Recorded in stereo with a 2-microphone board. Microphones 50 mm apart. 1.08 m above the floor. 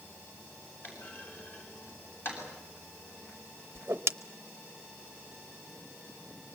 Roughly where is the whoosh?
Right.